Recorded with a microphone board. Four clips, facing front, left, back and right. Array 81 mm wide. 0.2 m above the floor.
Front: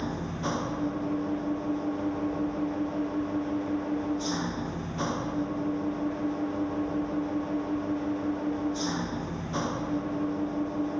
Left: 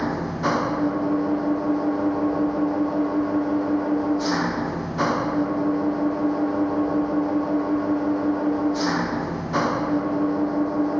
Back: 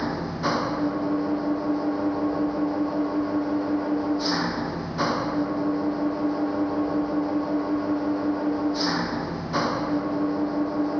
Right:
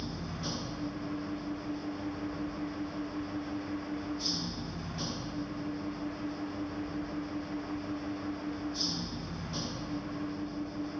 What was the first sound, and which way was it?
An engine running, 115° left.